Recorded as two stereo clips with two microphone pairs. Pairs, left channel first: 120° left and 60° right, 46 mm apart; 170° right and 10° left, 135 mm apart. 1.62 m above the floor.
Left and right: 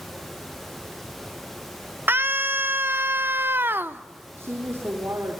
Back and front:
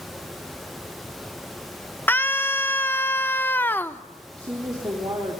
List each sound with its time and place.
2.1 s a scream: 95° right, 1.2 m
4.4 s a woman speaking: 45° right, 4 m